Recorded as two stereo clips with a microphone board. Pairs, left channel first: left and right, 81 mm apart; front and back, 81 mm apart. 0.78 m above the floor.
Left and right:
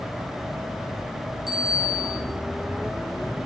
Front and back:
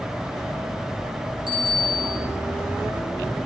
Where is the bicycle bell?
Straight behind, 8.5 m.